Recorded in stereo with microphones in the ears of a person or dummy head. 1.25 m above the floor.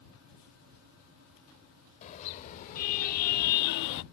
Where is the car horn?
40° left (ahead or behind); by 4.0 s 65° left (ahead or behind).